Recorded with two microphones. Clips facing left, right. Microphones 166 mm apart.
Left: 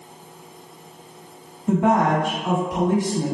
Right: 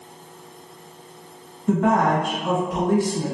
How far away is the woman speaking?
About 1.4 m.